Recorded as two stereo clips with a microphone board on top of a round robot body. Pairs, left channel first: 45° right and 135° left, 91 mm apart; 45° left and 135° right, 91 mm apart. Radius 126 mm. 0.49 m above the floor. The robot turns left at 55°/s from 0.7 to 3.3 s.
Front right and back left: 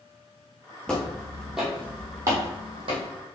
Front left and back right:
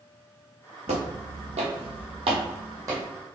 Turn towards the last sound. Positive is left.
turn(degrees=145)